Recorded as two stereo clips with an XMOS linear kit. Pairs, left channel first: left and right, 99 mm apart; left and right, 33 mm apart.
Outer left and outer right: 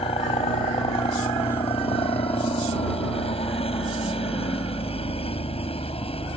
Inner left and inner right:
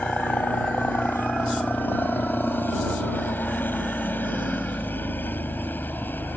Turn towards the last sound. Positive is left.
turn(degrees=75)  # may be behind; listen again after turning